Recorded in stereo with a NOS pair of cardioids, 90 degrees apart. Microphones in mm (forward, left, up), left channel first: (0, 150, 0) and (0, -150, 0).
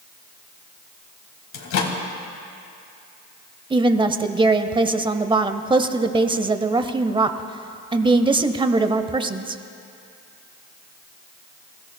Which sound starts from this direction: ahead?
A woman speaking, at 3.7 s.